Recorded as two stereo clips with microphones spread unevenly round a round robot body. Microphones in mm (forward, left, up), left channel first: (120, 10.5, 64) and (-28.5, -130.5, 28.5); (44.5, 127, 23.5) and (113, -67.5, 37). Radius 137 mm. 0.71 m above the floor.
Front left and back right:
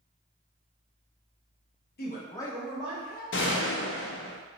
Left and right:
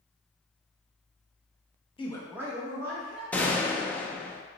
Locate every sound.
2.0 s a man speaking: 65° left, 0.7 m; by 3.2 s 95° right, 1.1 m
3.3 s a gunshot: 30° left, 0.5 m